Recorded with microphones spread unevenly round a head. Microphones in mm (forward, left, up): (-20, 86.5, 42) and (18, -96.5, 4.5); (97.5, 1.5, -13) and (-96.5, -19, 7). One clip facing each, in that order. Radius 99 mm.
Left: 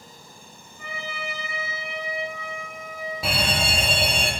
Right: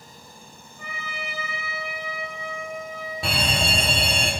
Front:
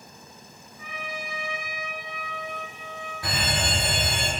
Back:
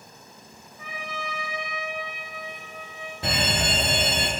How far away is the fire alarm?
About 1.0 m.